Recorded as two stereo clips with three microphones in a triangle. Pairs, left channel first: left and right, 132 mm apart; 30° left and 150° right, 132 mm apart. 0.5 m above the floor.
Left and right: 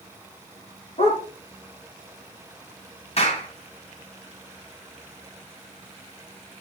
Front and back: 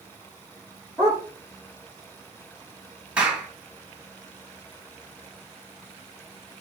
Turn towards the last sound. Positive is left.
turn(degrees=130)